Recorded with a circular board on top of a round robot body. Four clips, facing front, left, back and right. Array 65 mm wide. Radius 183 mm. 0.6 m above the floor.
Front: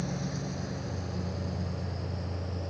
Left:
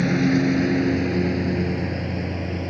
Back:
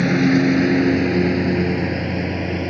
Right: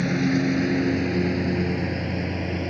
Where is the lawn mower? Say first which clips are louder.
Left 3 dB, back 20 dB; 170° left; by 2.7 s 170° right.